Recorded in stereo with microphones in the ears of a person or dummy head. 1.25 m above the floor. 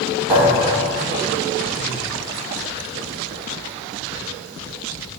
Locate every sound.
0.3 s a thud: 10° right (ahead or behind), 1.3 m